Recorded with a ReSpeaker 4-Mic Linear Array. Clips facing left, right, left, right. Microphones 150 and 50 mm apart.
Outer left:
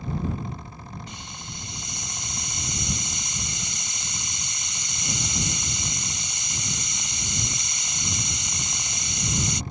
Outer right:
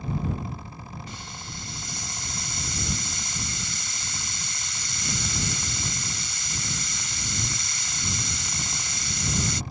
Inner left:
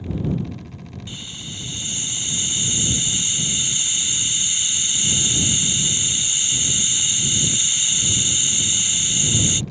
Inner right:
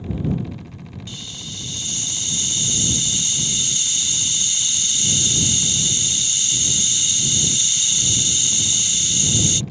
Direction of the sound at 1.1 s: 20° left (ahead or behind).